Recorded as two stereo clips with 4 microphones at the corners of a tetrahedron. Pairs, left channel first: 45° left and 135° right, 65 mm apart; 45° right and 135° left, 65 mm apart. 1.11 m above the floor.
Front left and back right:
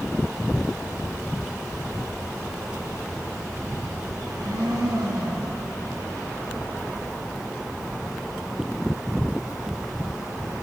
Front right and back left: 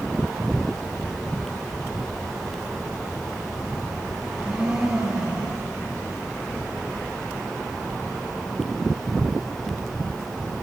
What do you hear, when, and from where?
4.2 s a blender: 145° right, 6.5 m